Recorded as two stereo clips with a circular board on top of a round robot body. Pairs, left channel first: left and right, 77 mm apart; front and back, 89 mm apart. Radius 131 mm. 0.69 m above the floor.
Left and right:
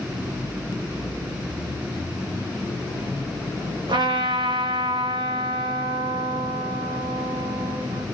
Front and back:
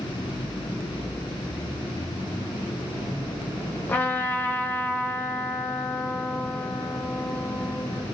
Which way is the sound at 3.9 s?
70° right.